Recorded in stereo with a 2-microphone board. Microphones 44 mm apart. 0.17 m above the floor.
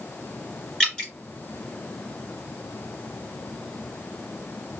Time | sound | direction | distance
0.8 | dripping | 15° left (ahead or behind) | 2.5 m